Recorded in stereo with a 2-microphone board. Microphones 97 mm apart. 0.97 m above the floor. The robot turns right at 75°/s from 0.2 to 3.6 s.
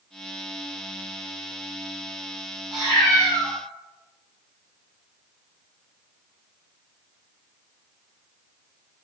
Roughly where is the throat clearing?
No throat clearing in this recording.